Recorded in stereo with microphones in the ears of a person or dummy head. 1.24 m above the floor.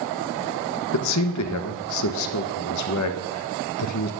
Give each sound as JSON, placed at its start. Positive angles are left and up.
{"t": 0.9, "sound": "a man speaking", "side_deg": 80, "distance_m": 1.1}